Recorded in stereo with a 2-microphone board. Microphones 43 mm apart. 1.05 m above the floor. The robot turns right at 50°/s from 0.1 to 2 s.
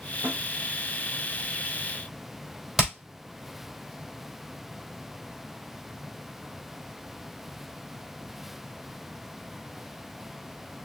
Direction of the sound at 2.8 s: 5° right (ahead or behind).